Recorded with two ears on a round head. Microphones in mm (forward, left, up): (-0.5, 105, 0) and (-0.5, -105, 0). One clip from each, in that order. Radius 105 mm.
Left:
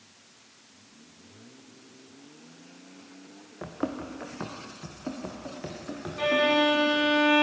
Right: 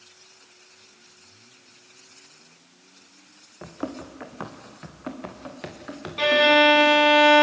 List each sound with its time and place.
3.6 s running footsteps: 5° left (ahead or behind), 1.8 m; by 7.2 s 75° right (ahead or behind), 5.5 m
6.2 s a violin: 55° right (ahead or behind), 0.8 m